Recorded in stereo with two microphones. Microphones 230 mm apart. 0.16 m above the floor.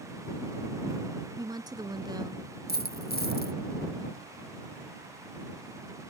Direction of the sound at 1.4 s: 15° right (ahead or behind).